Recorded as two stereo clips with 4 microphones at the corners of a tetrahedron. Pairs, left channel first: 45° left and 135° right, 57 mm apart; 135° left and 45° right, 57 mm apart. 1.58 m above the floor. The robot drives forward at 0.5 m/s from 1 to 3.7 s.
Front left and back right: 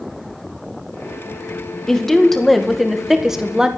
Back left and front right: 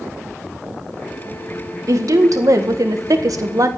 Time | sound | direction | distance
1.9 | a woman speaking | 35° right | 2 m